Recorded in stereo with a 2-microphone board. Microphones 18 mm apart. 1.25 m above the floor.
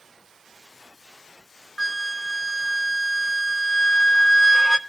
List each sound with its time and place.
1.8 s a flute: 30° left (ahead or behind), 0.5 m